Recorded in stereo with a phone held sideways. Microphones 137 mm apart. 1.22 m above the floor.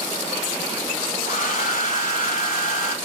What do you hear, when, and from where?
1.2 s a hair dryer: 65° left (ahead or behind), 2.5 m